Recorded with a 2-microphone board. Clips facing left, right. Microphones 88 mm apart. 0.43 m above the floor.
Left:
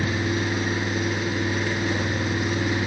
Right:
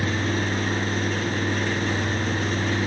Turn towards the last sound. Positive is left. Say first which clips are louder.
# even
turn(degrees=10)  # may be behind; listen again after turning